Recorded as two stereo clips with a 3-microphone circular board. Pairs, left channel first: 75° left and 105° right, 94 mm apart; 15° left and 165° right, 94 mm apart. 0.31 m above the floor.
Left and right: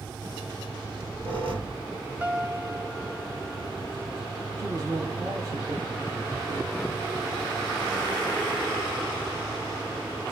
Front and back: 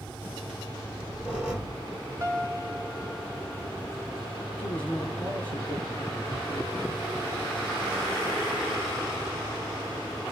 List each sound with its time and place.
0.8 s a squeak: 85° right, 3 m
2.2 s a piano: 170° right, 1.1 m
4.6 s a man speaking: 65° right, 1.9 m